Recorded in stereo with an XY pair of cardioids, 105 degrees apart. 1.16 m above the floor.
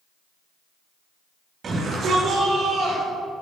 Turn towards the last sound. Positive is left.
turn(degrees=-80)